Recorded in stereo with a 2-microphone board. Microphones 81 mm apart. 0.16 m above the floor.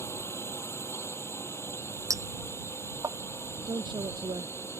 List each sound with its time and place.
0.0 s a drone: 30° left (ahead or behind)
2.1 s a clink: 40° right (ahead or behind)
3.7 s a woman speaking: 70° right (ahead or behind)